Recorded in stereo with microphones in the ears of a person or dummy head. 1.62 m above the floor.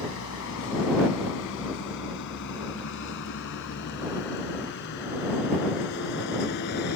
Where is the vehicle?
75° left (ahead or behind); by 7.0 s 60° left (ahead or behind).